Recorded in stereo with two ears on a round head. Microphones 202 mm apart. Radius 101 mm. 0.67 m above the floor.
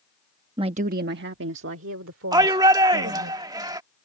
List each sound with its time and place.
0.6 s a woman speaking: 20° right (ahead or behind); by 3.3 s 65° right (ahead or behind)
2.3 s a shout: 15° right (ahead or behind)